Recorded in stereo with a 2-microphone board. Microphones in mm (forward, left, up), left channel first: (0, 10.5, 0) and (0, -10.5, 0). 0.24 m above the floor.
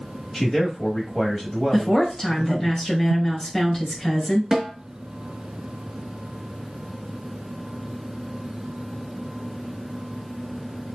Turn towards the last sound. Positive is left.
turn(degrees=-10)  # may be behind; listen again after turning